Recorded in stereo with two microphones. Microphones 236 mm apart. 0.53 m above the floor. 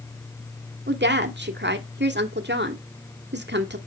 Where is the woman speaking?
45° right (ahead or behind), 1.6 m.